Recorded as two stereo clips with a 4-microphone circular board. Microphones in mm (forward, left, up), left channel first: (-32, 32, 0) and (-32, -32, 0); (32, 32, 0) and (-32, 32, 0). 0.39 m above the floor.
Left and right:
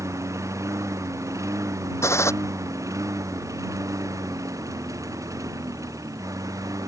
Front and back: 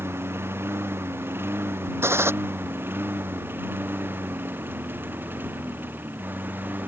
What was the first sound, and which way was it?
A lawn mower, 130° right.